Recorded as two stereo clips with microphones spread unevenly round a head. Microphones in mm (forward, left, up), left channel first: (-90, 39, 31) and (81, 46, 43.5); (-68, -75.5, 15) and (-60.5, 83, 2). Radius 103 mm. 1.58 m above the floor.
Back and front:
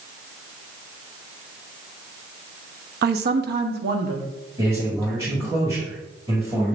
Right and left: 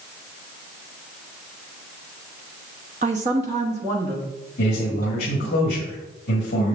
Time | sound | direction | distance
3.0 | a man speaking | 25° left | 0.6 m
4.6 | a man speaking | 75° right | 1.6 m